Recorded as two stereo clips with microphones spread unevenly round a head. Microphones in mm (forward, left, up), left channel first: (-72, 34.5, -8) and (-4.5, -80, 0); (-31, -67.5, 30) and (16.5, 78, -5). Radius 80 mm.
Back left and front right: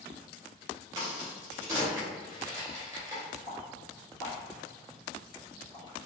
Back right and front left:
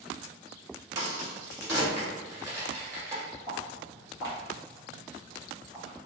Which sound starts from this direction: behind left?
Footsteps, at 3.5 s.